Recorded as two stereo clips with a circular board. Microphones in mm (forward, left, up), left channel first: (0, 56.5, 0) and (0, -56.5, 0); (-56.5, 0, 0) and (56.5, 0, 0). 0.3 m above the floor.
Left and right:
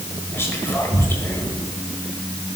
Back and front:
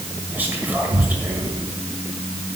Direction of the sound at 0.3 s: 50° left.